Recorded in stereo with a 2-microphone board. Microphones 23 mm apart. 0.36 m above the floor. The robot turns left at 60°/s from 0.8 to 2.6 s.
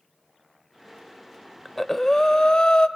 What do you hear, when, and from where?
1.6 s breathing: straight behind, 0.5 m; by 2.9 s 125° left, 0.5 m